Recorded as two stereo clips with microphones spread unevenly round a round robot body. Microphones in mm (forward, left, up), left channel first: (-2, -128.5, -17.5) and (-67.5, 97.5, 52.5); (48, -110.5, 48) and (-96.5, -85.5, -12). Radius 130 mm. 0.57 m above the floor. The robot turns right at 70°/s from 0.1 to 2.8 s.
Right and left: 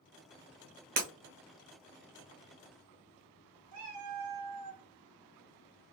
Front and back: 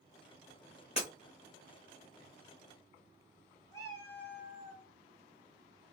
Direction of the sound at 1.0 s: 50° left.